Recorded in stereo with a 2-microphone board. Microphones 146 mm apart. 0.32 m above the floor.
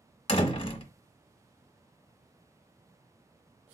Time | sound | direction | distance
0.3 | a door slam | 40° left (ahead or behind) | 0.7 m